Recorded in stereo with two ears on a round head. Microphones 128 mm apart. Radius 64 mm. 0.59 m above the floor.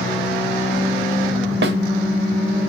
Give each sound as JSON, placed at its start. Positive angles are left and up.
{"t": 1.6, "sound": "a snare drum", "side_deg": -85, "distance_m": 0.8}